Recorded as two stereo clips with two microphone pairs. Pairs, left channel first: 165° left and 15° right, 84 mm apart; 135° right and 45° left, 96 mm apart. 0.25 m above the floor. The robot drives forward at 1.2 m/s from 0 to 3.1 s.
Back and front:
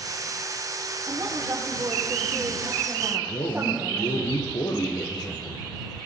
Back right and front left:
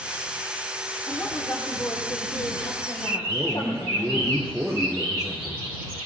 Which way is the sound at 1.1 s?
65° right.